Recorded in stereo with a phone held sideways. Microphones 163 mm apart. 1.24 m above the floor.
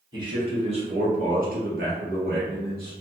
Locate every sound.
0.1 s a man speaking: 30° right (ahead or behind), 1.2 m; by 2.9 s 65° right (ahead or behind), 0.9 m